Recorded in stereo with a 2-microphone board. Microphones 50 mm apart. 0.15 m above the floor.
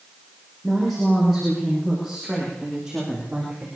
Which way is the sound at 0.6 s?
5° left (ahead or behind).